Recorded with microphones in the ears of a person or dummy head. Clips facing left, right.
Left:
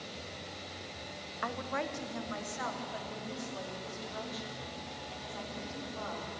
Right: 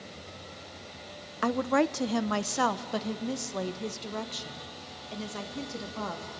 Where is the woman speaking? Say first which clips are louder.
Right 12 dB; 45° right (ahead or behind), 0.6 m; by 6.3 s 70° right (ahead or behind), 3 m.